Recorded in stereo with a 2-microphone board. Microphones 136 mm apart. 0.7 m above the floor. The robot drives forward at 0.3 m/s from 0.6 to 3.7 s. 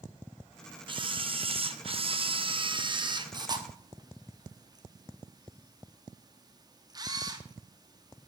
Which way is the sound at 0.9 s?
35° right (ahead or behind).